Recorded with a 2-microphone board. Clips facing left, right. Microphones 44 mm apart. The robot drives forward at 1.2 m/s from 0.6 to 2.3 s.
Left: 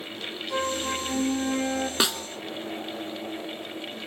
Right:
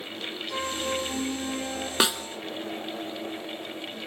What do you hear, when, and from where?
0.5 s a flute: 15° left (ahead or behind), 2.5 m; by 1.9 s 20° left (ahead or behind), 1.5 m
2.0 s a snare drum: 15° right (ahead or behind), 0.8 m; by 2.2 s 10° right (ahead or behind), 1.1 m